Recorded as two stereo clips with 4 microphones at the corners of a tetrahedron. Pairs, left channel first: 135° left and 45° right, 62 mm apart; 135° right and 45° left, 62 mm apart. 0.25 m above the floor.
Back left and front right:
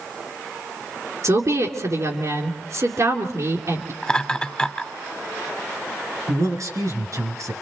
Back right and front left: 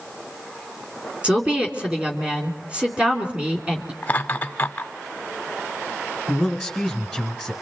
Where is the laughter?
165° right, 1.0 m.